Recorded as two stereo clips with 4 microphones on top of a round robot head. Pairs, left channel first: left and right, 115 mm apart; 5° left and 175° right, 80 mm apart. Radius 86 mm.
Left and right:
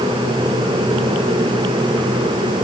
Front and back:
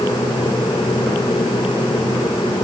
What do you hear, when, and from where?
Only background noise.